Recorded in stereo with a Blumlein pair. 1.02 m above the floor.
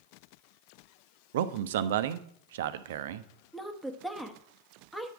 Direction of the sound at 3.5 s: 5° left.